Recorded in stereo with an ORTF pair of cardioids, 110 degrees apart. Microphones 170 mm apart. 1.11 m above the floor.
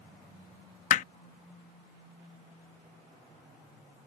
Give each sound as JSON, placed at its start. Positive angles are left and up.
{"t": 0.9, "sound": "hammering", "azimuth_deg": 50}